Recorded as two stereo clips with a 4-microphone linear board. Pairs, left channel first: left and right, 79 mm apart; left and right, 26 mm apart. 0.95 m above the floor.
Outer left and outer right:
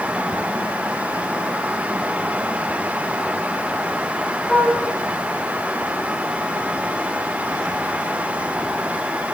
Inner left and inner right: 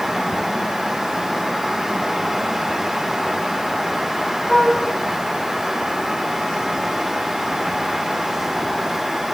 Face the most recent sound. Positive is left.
turn(degrees=10)  # may be behind; listen again after turning